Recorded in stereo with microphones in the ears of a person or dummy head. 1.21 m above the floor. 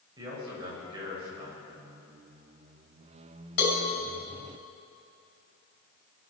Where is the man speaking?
25° right (ahead or behind), 6 m.